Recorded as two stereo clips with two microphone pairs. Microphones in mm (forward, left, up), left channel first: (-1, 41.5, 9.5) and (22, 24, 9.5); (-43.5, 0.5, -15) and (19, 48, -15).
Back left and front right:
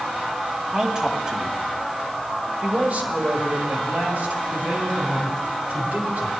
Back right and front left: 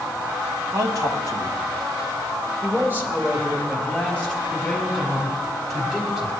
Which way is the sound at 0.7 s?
35° left.